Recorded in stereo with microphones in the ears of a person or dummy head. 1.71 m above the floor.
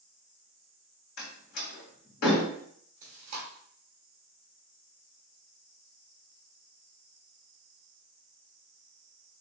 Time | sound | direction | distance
1.2 | a door slam | 65° left (ahead or behind) | 2 m
3.0 | chewing | 30° right (ahead or behind) | 1.1 m